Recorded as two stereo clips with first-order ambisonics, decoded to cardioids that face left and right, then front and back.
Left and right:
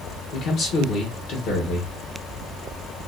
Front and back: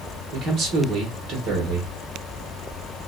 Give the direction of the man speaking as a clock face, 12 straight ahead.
8 o'clock.